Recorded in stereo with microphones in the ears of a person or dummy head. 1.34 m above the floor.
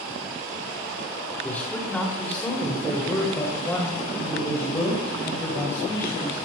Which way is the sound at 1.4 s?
10° left (ahead or behind).